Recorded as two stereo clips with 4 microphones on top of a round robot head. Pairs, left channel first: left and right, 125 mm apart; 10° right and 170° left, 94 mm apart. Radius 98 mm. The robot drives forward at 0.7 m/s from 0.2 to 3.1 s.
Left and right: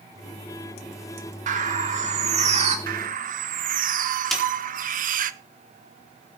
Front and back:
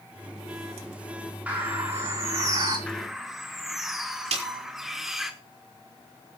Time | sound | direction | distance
1.5 | a bird | 105° right | 3 m
2.9 | a bird | 90° right | 0.9 m
4.3 | a snare drum | straight behind | 4.5 m